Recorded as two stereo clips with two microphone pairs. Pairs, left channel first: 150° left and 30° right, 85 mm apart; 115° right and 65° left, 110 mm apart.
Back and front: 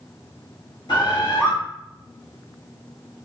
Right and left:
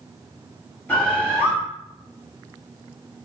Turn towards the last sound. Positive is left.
turn(degrees=165)